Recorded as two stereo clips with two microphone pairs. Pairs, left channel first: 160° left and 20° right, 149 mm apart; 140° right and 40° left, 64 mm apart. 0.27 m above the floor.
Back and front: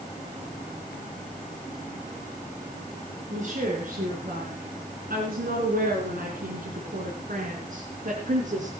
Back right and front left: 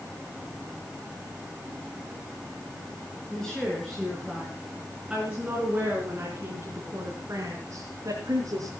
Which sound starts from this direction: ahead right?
A woman speaking, at 3.3 s.